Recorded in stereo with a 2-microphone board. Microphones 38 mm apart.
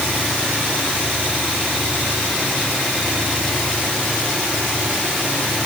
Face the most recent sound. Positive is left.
No sound to turn to.